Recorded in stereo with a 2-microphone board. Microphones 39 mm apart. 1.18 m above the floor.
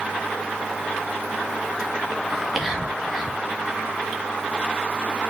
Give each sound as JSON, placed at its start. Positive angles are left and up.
{"t": 2.3, "sound": "whispering", "side_deg": -10, "distance_m": 2.5}